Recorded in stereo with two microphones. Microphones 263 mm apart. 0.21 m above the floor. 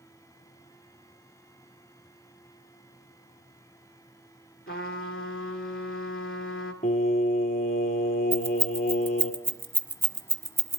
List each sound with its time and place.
4.7 s a trumpet: 55° left (ahead or behind), 1.9 m
6.8 s singing: 35° left (ahead or behind), 1.3 m
8.3 s keys jangling: 10° right (ahead or behind), 1.0 m